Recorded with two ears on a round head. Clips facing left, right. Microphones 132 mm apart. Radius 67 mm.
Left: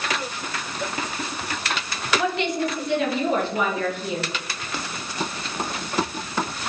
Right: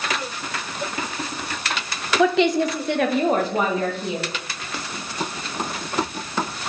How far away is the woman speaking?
About 0.9 m.